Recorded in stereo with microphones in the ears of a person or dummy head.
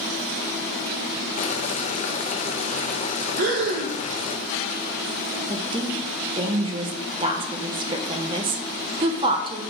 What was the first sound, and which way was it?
Boiling, 35° left (ahead or behind).